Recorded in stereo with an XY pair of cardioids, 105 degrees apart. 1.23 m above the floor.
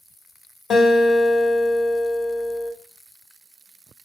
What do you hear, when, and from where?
0.7 s a guitar: 35° left, 1.6 m